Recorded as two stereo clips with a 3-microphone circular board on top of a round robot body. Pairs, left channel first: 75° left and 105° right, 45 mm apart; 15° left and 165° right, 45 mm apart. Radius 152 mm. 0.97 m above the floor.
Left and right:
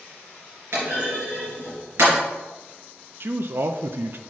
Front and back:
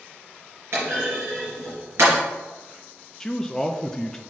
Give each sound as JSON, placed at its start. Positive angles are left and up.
{"t": 0.7, "sound": "a clunk", "azimuth_deg": -135, "distance_m": 3.5}
{"t": 3.2, "sound": "a man speaking", "azimuth_deg": -65, "distance_m": 0.6}